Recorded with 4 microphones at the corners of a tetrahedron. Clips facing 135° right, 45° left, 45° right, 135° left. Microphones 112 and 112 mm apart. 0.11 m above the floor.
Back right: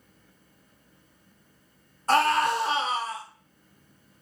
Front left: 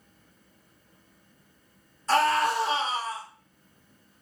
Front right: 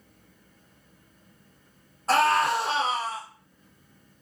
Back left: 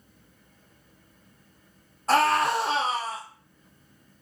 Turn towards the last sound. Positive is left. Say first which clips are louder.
# back right 1 dB, even
turn(degrees=-135)